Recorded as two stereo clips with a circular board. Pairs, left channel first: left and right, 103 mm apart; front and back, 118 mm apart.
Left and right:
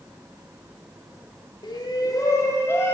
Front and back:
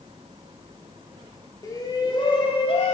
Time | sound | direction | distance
1.6 | a shout | 55° left | 1.8 m